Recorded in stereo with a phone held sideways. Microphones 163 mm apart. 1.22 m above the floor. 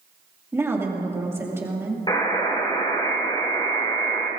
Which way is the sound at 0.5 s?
15° right (ahead or behind).